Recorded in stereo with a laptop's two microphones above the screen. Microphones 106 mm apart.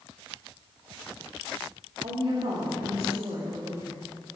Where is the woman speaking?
80° right, 2 m; by 4.0 s 40° right (ahead or behind), 1.6 m.